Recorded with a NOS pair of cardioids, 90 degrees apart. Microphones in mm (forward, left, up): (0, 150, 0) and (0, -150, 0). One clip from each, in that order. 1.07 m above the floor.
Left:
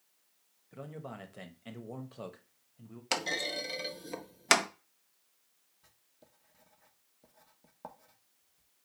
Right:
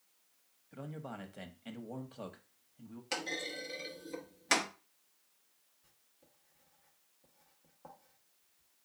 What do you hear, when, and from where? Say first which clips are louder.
0.7 s a man speaking: left 1 dB; 5° left, 1.0 m
3.1 s a clunk: left 5 dB; 50° left, 0.8 m
5.8 s writing: left 6 dB; 60° left, 1.1 m